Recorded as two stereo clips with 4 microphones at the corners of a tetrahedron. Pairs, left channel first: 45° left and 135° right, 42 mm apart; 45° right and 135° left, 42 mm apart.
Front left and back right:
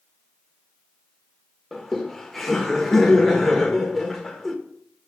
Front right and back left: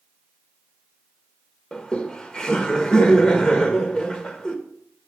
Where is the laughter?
40° right, 1.4 m.